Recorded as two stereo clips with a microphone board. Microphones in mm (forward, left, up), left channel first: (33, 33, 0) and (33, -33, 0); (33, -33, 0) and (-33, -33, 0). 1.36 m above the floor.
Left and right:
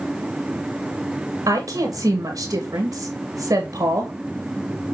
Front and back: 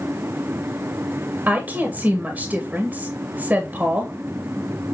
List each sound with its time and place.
1.5 s a woman speaking: 115° right, 1.6 m